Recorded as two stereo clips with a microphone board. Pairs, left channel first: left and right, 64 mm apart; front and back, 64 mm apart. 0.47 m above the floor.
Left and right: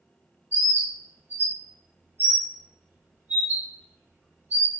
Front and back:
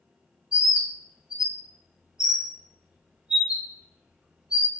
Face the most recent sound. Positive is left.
turn(degrees=-120)